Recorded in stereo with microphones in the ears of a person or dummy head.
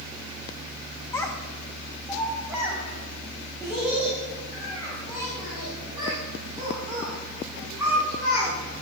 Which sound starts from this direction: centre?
A child speaking, at 1.1 s.